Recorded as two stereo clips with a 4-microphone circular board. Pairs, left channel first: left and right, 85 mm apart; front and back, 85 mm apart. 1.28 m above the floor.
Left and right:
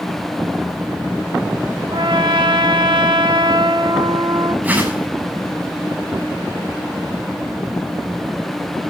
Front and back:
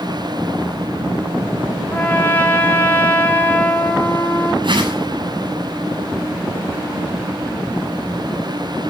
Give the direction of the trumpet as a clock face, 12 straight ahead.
2 o'clock.